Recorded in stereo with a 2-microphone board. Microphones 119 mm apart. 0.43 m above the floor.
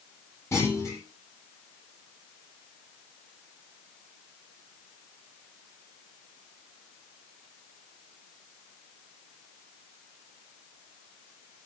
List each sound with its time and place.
0.5 s a clunk: 25° left (ahead or behind), 9.5 m